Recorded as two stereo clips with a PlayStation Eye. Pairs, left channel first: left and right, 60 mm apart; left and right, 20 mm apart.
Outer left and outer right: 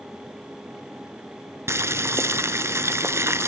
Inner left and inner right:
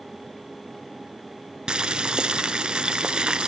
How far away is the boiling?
About 0.9 m.